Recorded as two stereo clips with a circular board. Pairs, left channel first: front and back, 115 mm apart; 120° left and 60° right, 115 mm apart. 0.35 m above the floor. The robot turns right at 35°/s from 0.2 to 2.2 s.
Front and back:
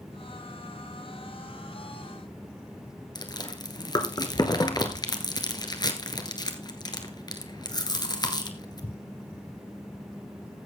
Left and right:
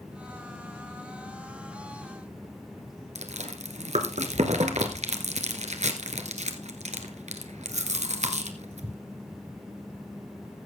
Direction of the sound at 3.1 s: 55° right.